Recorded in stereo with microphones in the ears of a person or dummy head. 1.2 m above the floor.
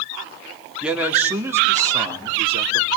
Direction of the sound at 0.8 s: 5° right (ahead or behind).